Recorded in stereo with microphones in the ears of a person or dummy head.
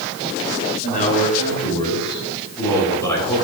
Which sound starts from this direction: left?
A man speaking, at 0.8 s.